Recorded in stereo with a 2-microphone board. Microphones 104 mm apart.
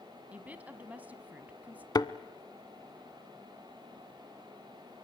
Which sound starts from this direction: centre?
A woman speaking, at 0.3 s.